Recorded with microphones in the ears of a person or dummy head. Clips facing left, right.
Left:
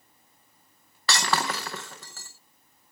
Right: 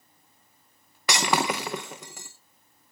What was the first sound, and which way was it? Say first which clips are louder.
Breaking glass: right 3 dB; 5° right (ahead or behind).